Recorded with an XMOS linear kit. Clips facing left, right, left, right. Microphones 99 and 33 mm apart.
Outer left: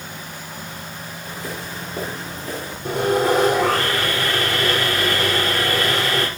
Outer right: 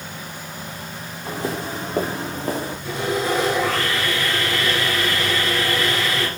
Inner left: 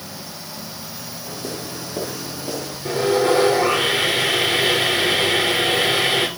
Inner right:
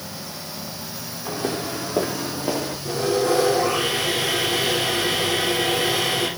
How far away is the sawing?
About 4 m.